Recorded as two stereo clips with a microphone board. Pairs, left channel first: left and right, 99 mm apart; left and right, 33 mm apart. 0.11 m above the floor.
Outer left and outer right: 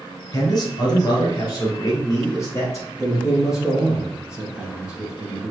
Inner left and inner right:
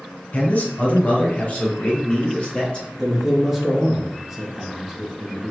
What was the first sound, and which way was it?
A man speaking, 40° left (ahead or behind).